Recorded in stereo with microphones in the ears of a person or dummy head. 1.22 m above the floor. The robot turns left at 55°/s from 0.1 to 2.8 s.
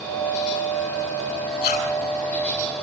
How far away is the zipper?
About 9 m.